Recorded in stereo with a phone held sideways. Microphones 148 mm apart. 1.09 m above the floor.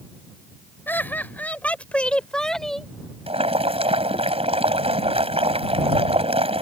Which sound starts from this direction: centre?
Laughter, at 0.9 s.